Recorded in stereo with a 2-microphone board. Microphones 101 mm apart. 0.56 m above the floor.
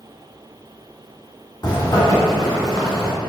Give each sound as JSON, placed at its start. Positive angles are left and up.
{"t": 1.6, "sound": "a zipper", "side_deg": 45, "distance_m": 1.4}